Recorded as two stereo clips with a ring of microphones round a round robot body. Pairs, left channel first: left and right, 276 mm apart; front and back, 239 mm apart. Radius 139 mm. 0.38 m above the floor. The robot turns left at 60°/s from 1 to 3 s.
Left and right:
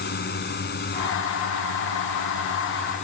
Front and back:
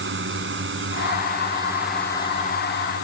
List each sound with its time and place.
0.0 s a drone: 145° left; by 3.0 s 25° left